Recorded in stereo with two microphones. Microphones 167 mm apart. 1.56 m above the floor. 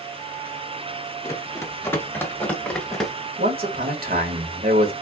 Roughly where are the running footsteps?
Centre.